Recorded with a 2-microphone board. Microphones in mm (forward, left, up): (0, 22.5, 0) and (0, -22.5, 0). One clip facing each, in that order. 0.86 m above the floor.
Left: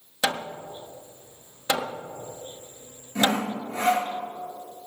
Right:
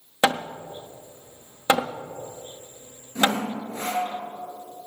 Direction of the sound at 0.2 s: 35° right (ahead or behind).